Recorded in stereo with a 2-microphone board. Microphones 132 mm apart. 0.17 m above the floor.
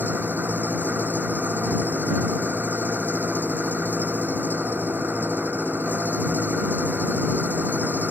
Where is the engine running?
15° right (ahead or behind).